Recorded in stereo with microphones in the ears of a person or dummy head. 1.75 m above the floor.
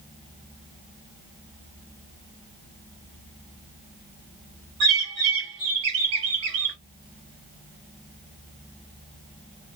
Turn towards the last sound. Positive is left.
turn(degrees=-25)  # may be behind; listen again after turning